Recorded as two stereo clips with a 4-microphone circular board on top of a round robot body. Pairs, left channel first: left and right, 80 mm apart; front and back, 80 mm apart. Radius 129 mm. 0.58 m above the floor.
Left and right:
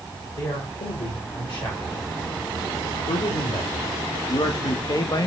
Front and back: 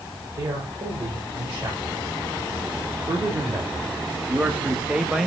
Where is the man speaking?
130° left, 3.5 m; by 5.3 s 90° left, 1.1 m.